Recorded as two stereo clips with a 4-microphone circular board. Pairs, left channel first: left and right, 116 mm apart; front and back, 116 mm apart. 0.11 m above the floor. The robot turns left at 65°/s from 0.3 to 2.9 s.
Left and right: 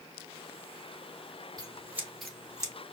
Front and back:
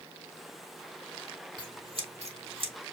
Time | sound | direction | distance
1.6 | scissors | 140° right | 1.4 m